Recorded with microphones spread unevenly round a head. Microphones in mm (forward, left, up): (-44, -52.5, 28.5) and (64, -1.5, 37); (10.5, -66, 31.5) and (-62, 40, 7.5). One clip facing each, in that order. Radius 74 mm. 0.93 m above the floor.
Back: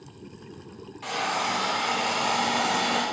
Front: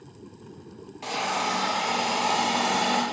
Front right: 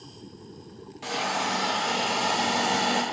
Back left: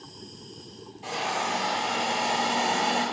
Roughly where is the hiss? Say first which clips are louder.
Even, front right 1 dB; ahead right.